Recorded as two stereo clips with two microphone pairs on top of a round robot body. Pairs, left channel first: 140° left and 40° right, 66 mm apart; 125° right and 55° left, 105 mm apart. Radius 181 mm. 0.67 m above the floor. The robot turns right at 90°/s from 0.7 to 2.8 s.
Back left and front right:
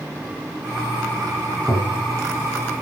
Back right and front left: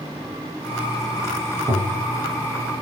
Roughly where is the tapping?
Ahead left.